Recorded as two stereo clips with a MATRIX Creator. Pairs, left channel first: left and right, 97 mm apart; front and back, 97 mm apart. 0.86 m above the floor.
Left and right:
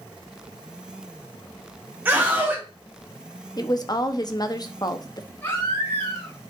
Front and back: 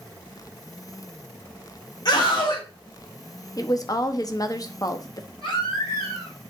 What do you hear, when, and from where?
2.0 s a scream: 25° right, 1.2 m
3.6 s a woman speaking: 45° left, 1.0 m
5.4 s a baby crying: 20° left, 4.5 m